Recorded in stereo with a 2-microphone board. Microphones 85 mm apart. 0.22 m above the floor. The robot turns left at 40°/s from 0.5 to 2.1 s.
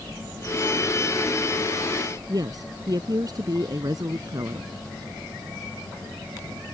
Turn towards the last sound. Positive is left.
turn(degrees=-50)  # may be behind; listen again after turning